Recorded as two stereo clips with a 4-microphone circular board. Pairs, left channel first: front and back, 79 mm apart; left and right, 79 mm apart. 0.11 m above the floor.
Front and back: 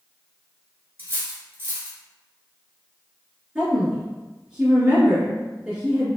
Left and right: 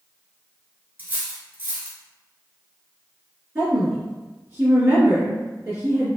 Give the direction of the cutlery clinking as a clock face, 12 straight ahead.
5 o'clock.